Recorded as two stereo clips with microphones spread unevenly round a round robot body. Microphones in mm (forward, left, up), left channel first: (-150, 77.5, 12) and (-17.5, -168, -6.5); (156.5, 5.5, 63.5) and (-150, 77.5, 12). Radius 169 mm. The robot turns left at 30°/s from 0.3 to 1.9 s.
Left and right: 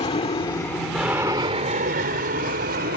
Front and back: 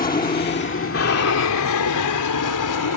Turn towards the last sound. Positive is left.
turn(degrees=-5)